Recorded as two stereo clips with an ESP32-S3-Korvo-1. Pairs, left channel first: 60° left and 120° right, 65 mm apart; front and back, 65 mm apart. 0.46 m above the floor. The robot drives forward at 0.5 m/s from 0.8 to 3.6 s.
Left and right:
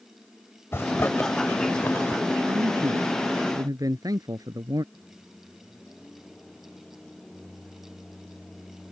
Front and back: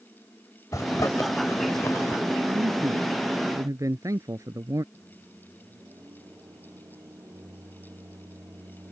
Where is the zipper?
15° left; by 2.2 s 20° left.